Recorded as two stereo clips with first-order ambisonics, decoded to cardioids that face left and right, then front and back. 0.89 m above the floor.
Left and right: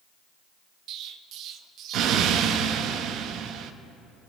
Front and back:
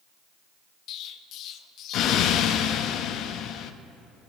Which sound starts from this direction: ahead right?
An explosion, at 0.9 s.